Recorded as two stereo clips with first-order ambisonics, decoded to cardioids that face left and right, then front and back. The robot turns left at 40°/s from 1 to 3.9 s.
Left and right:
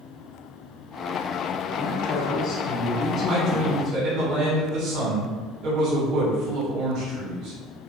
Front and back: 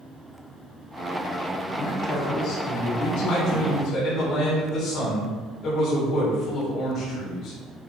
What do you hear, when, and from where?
1.8 s a man speaking: 65° left, 2 m; by 4.0 s 20° right, 2 m
3.3 s a man speaking: 35° right, 3 m; by 7.6 s 60° right, 3 m